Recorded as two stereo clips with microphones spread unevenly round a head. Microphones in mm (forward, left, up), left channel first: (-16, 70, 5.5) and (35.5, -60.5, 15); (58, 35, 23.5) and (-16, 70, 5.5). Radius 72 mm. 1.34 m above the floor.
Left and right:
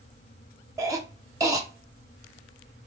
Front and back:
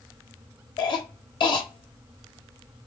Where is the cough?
Straight ahead, 0.7 m.